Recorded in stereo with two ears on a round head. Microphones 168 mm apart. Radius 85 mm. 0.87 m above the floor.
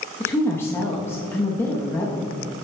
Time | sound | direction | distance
0.2 | a woman speaking | 15° left (ahead or behind) | 0.9 m